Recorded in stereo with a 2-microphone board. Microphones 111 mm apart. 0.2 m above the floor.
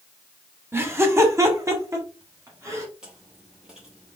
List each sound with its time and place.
0.7 s laughter: 20° right (ahead or behind), 1.0 m; by 2.9 s 30° right (ahead or behind), 1.6 m
3.0 s chewing: 10° right (ahead or behind), 2.5 m